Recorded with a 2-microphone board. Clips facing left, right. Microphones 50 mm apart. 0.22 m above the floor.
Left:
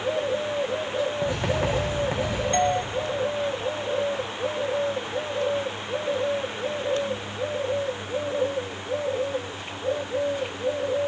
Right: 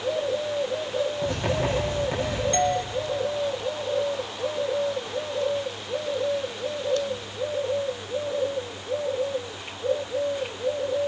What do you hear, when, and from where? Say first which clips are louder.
1.2 s writing: left 1 dB; 20° left (ahead or behind), 9.5 m
2.5 s a doorbell: left 2 dB; 15° left (ahead or behind), 1.4 m